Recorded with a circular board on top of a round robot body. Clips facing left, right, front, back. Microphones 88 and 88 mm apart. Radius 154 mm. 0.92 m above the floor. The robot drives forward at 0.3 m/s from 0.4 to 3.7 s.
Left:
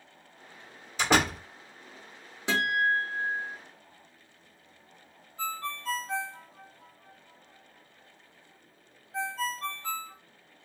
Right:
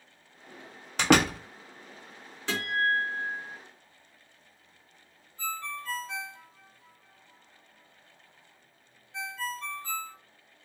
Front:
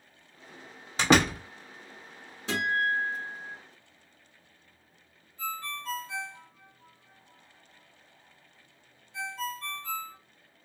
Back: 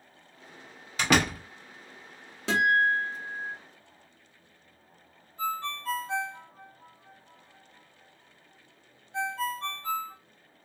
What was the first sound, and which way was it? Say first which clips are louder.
A door slam: right 3 dB, front 2 dB; 60° right.